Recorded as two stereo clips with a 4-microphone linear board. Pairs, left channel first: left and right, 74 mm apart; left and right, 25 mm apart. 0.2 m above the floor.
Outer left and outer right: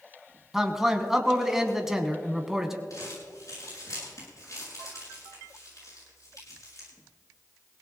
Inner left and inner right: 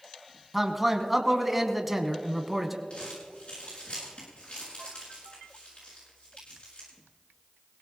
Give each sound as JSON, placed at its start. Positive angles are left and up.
{"t": 0.5, "sound": "a man speaking", "side_deg": -5, "distance_m": 1.3}
{"t": 2.9, "sound": "crumpling", "side_deg": 50, "distance_m": 7.0}